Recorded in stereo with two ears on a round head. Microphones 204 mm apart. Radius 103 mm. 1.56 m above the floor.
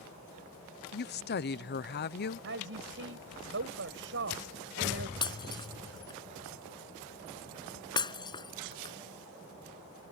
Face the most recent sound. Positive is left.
turn(degrees=20)  # may be behind; listen again after turning